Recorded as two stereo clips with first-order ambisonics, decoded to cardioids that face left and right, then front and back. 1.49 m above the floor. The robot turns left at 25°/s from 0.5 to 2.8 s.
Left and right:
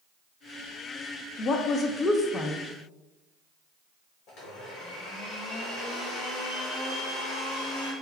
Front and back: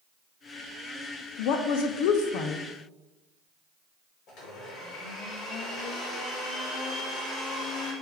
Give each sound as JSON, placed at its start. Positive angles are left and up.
{"t": 1.4, "sound": "a woman speaking", "azimuth_deg": 35, "distance_m": 0.5}
{"t": 4.3, "sound": "a blender", "azimuth_deg": 45, "distance_m": 1.6}